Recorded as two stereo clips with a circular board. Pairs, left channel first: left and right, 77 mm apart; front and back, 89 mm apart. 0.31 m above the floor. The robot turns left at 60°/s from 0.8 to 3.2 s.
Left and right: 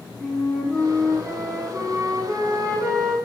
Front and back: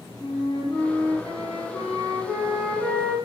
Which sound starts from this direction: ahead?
A flute, at 0.2 s.